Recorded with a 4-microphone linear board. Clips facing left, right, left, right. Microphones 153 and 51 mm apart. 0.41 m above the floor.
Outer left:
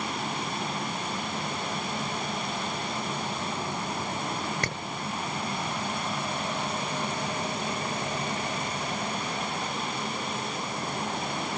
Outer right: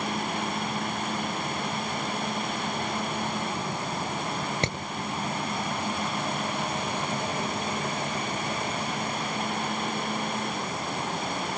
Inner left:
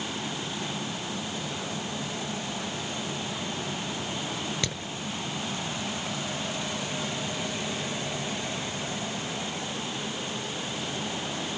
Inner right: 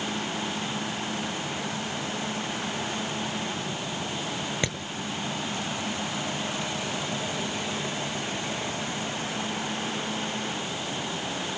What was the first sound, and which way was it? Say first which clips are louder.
Hammering: outer right 4 dB, inner right 3 dB; 20° right (ahead or behind).